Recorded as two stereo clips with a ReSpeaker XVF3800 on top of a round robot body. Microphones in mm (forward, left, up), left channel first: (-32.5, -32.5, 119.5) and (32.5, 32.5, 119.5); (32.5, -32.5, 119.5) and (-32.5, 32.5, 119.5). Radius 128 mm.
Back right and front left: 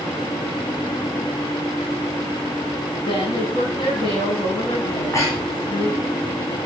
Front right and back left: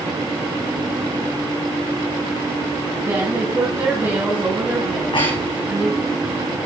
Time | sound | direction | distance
3.0 | a woman speaking | 165° right | 4.5 m
4.9 | breathing | 75° right | 7.5 m